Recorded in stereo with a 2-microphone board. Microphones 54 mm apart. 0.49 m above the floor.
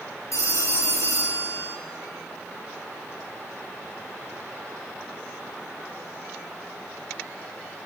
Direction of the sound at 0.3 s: 65° left (ahead or behind).